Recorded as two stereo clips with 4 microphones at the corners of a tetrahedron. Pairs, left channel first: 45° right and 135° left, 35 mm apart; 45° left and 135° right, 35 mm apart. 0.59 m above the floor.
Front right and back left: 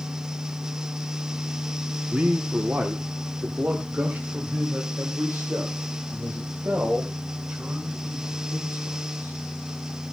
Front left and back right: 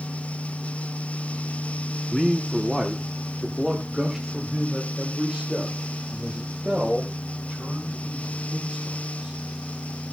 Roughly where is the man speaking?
Behind left.